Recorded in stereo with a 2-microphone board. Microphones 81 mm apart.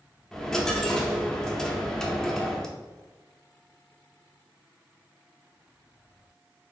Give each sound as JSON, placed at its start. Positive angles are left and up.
{"t": 0.3, "sound": "a dropped coin", "side_deg": 5, "distance_m": 0.7}